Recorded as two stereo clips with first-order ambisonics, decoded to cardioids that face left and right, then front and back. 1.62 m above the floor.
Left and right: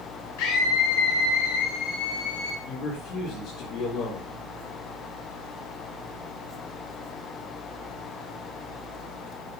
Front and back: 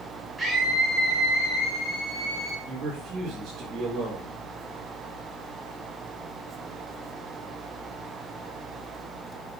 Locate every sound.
0.4 s a scream: 95° left, 2 m; by 2.5 s 65° left, 2.5 m
2.6 s a man speaking: 120° left, 5 m